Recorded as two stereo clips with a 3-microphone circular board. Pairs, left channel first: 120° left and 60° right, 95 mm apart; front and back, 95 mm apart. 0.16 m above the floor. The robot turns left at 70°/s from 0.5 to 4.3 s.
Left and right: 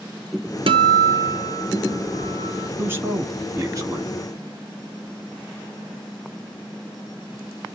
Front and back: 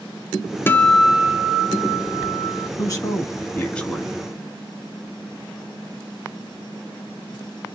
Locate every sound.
0.7 s a guitar: 65° right, 0.5 m; by 2.7 s 150° left, 0.5 m
2.8 s a man speaking: straight ahead, 1.3 m; by 4.2 s 105° right, 1.3 m